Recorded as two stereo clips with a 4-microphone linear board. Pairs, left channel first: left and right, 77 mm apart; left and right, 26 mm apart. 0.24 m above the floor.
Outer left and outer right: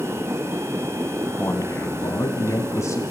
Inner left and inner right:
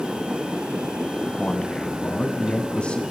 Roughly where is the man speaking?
Left.